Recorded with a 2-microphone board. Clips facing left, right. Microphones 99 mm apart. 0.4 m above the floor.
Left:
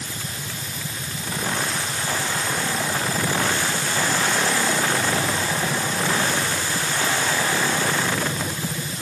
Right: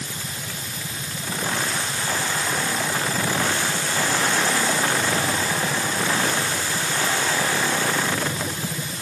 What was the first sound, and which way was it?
Only background noise.